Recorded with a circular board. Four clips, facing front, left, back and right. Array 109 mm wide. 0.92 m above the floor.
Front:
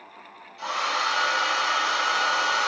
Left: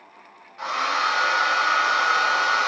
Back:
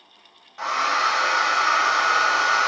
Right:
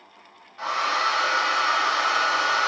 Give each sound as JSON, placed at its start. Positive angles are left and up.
{"t": 0.6, "sound": "a hair dryer", "azimuth_deg": 180, "distance_m": 1.1}